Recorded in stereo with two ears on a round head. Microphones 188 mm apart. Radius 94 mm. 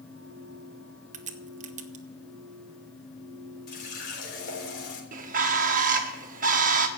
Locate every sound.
1.1 s a crack: 35° right (ahead or behind), 1.0 m
3.7 s a running tap: 50° left (ahead or behind), 3.5 m
5.1 s a bird: 40° right (ahead or behind), 1.3 m